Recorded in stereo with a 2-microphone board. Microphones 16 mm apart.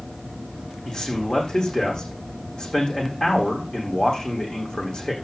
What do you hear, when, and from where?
0.8 s a man speaking: 50° left (ahead or behind), 8 m